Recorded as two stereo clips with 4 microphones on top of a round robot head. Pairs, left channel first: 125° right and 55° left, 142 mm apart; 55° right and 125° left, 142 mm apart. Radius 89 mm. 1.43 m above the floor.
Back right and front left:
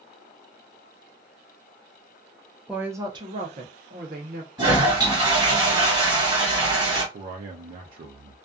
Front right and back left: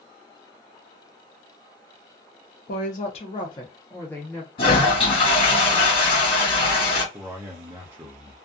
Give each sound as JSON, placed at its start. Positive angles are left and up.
{"t": 2.7, "sound": "a woman speaking", "azimuth_deg": -30, "distance_m": 0.6}
{"t": 4.6, "sound": "a toilet flushing", "azimuth_deg": -5, "distance_m": 1.5}
{"t": 7.1, "sound": "a man speaking", "azimuth_deg": 55, "distance_m": 0.6}